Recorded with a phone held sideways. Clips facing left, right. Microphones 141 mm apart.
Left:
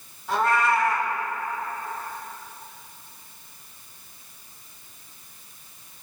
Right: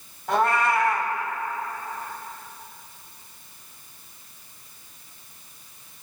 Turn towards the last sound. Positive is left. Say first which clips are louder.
# right 1 dB
turn(degrees=-55)  # may be behind; listen again after turning